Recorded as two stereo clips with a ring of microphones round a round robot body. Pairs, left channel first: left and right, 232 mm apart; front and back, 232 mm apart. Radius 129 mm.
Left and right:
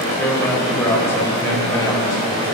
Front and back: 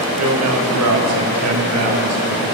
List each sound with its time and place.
0.2 s a man speaking: 175° left, 3 m; by 2.5 s 170° left, 5 m